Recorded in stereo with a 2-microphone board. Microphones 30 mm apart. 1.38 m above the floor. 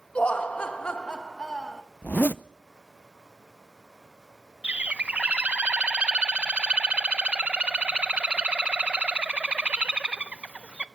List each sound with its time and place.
0.1 s laughter: 45° left (ahead or behind), 2 m; by 1.8 s 20° left (ahead or behind), 1.7 m
2.0 s a zipper: 80° left, 0.5 m
4.6 s a bird: 50° right (ahead or behind), 0.6 m